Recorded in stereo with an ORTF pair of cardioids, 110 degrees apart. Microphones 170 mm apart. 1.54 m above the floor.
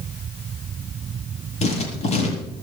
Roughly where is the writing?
Ahead left.